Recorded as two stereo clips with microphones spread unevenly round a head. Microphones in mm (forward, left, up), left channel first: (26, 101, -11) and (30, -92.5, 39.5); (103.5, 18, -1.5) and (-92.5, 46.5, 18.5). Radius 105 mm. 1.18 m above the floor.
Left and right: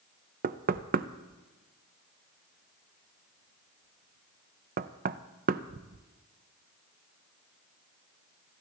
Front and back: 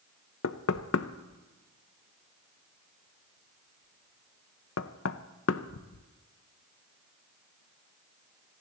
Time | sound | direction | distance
0.4 | knocking | 45° right | 0.6 m